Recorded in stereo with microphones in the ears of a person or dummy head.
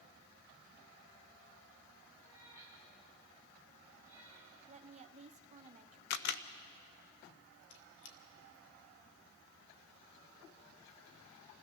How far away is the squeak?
About 1.9 m.